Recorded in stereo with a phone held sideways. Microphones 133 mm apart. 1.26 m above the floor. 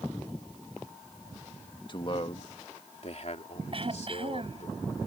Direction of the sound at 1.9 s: 35° left (ahead or behind).